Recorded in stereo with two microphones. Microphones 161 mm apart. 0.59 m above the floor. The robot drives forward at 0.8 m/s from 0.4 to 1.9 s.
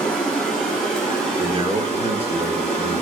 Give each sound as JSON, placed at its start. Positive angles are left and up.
{"t": 0.0, "sound": "running water", "side_deg": 0, "distance_m": 2.0}
{"t": 1.4, "sound": "a man speaking", "side_deg": -35, "distance_m": 1.0}